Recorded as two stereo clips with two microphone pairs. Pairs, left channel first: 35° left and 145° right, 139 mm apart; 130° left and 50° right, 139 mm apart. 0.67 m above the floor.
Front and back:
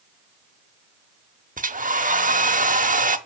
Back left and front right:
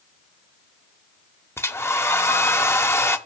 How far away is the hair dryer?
About 0.8 m.